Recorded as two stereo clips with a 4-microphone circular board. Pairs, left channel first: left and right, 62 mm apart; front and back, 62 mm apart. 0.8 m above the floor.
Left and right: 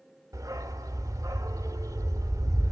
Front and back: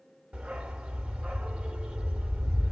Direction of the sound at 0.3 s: 105° right.